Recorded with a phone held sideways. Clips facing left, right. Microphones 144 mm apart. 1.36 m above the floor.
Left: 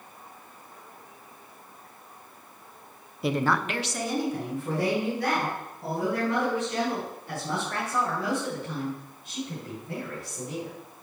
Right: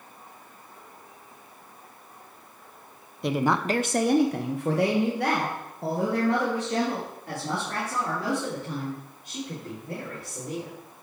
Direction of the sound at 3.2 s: 5° left (ahead or behind).